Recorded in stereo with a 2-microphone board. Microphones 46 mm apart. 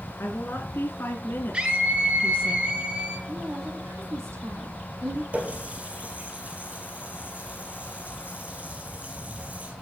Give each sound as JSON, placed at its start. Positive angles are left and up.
{"t": 0.2, "sound": "a woman speaking", "side_deg": 55, "distance_m": 3.0}
{"t": 1.5, "sound": "a scream", "side_deg": -20, "distance_m": 3.5}
{"t": 3.3, "sound": "a woman speaking", "side_deg": -75, "distance_m": 5.0}
{"t": 5.3, "sound": "a running tap", "side_deg": -30, "distance_m": 4.0}